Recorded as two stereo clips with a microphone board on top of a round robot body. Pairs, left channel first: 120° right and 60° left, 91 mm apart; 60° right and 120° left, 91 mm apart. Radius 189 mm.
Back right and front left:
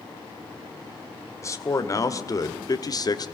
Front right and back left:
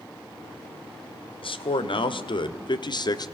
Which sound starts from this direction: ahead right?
A man speaking, at 1.4 s.